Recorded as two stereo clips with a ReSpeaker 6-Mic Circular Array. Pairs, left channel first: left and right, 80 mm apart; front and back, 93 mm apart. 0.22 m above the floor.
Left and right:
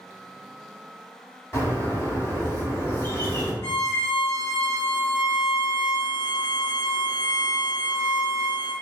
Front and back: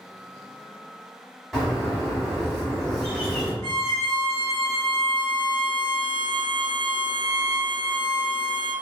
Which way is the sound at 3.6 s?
45° left.